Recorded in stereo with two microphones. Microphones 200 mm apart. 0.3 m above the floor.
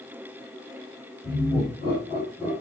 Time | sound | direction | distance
1.2 | laughter | 30° left (ahead or behind) | 5.5 m